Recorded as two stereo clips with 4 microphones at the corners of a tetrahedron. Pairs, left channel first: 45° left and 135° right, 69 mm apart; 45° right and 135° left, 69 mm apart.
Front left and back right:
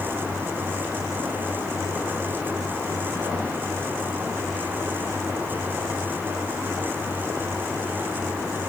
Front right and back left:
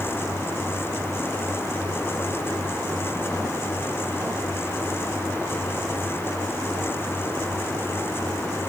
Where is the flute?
I don't hear a flute.